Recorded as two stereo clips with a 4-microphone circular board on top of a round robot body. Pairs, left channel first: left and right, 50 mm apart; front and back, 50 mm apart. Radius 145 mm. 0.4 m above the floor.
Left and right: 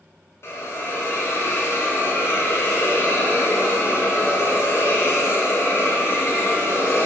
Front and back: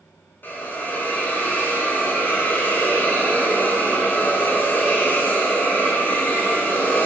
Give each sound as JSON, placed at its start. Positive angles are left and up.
{"t": 0.4, "sound": "a hiss", "azimuth_deg": 50, "distance_m": 0.8}